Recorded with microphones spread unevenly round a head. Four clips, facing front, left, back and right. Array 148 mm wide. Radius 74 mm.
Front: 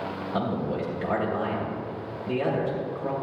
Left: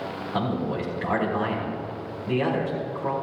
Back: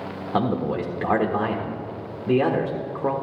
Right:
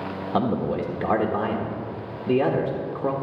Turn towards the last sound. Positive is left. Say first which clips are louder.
# right 4 dB, back 5 dB
turn(degrees=-145)